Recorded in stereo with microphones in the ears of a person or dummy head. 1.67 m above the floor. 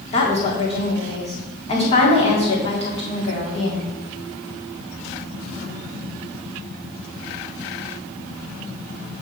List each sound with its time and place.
0.1 s a woman speaking: 30° left (ahead or behind), 1.6 m